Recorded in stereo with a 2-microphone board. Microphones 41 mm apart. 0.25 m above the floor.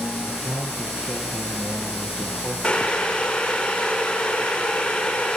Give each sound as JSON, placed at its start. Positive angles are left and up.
{"t": 0.2, "sound": "a man speaking", "side_deg": -45, "distance_m": 6.5}
{"t": 2.6, "sound": "boiling", "side_deg": 20, "distance_m": 8.5}